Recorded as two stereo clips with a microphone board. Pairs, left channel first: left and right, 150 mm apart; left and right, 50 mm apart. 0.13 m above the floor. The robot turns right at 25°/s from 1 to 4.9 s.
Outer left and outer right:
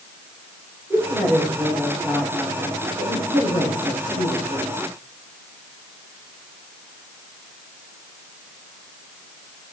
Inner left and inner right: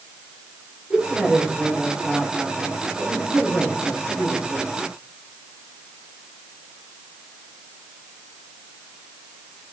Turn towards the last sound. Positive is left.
turn(degrees=75)